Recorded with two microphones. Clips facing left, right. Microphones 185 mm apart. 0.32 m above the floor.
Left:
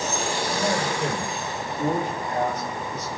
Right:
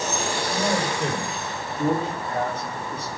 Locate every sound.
0.5 s a man speaking: 15° right (ahead or behind), 8 m; by 3.1 s 30° right (ahead or behind), 8 m